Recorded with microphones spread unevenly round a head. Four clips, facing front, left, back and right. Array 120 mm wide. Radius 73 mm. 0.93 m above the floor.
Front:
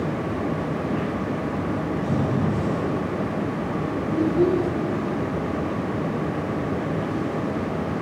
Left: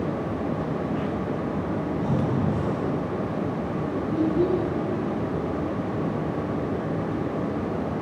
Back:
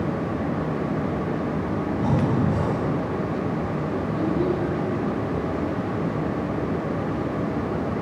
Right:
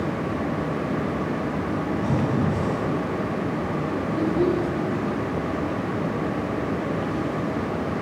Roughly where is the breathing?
Behind.